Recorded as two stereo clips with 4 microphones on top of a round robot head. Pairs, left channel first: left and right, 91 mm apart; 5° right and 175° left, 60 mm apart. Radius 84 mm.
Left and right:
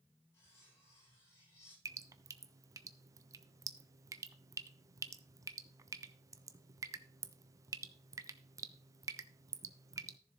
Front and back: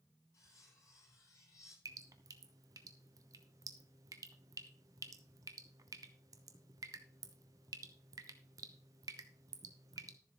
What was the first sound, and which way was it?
Cutlery clinking, 30° left.